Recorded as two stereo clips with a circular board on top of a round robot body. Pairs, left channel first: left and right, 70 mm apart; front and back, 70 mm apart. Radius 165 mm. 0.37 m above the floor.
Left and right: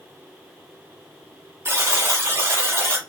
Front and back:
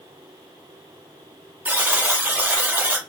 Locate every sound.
1.6 s a buzzer: 125° right, 1.2 m